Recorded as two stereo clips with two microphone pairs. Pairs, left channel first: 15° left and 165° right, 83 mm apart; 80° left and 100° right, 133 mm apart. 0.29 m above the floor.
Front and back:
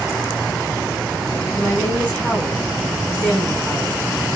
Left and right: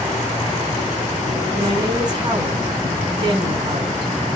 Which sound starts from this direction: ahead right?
A woman speaking, at 1.6 s.